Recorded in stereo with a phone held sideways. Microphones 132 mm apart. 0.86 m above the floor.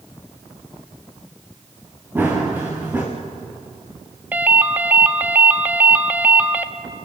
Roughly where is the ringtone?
Centre.